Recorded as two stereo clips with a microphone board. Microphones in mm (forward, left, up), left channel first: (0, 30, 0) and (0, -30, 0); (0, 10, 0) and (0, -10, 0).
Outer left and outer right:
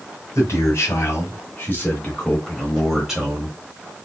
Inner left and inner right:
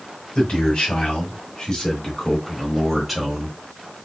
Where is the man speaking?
50° left (ahead or behind), 2 m; by 3.6 s 20° right (ahead or behind), 1.4 m.